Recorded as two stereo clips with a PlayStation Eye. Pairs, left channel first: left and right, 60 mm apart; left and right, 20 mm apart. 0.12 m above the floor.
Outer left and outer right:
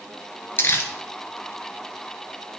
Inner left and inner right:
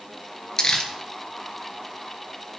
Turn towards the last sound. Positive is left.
turn(degrees=40)  # may be behind; listen again after turning